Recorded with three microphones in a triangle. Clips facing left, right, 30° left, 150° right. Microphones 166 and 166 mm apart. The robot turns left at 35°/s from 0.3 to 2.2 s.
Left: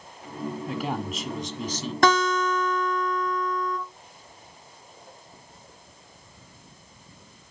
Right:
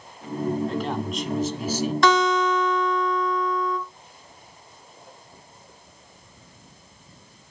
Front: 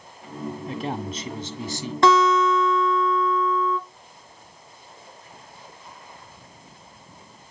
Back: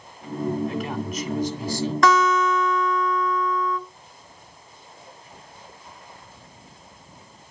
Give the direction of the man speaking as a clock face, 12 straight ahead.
11 o'clock.